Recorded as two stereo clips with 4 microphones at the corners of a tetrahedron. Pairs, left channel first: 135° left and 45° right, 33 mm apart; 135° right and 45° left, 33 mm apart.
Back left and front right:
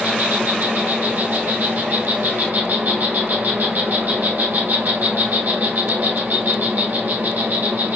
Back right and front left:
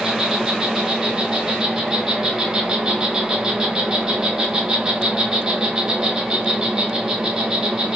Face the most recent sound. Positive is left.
turn(degrees=-25)